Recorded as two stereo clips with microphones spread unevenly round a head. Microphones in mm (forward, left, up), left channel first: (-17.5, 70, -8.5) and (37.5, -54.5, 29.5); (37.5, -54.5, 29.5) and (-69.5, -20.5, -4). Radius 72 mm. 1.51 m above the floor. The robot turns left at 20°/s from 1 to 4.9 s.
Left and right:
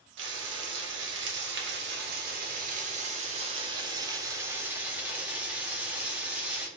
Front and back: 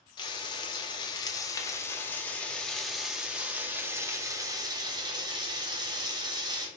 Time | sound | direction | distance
0.2 | frying | 75° right | 0.8 m